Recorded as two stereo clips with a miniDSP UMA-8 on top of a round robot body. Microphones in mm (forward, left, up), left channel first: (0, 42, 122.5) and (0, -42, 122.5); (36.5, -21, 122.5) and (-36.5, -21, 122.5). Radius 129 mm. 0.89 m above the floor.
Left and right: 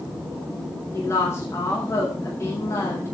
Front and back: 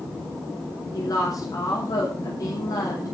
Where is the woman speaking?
35° left, 5.5 m.